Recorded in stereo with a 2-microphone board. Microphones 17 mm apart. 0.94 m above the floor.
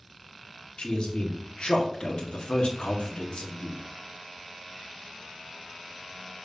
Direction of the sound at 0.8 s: 75° left (ahead or behind).